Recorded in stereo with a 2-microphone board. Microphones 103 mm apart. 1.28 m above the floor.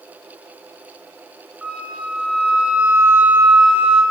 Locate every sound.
1.6 s a flute: 10° right (ahead or behind), 3 m